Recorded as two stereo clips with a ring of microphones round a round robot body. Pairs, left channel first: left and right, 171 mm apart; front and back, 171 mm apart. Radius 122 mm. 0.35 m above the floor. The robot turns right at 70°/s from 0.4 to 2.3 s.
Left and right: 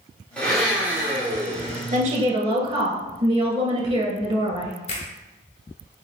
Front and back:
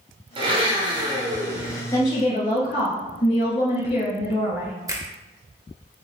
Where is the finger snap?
120° left, 0.9 m.